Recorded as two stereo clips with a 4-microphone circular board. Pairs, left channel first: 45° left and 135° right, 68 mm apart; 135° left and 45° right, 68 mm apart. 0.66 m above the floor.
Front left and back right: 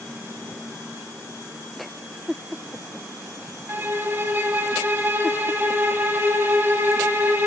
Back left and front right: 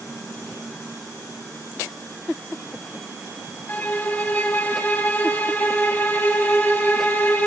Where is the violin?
170° right, 0.6 m.